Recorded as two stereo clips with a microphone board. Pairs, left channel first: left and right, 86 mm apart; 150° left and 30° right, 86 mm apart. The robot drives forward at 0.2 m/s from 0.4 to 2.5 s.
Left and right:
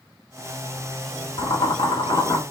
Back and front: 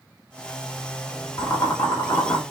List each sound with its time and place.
1.4 s boiling: 110° left, 1.3 m; by 2.4 s 115° left, 1.4 m